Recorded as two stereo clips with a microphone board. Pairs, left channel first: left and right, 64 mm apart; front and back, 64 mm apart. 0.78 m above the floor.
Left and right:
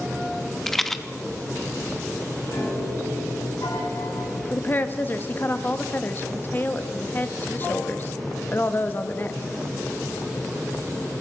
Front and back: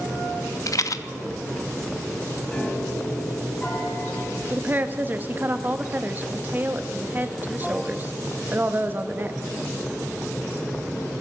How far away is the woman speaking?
About 0.7 m.